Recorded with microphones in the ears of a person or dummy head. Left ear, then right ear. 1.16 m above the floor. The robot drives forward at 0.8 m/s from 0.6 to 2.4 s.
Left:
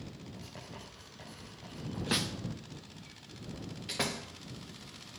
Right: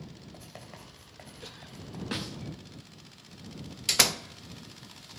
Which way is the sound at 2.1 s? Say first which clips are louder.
Left 4 dB; 15° left (ahead or behind).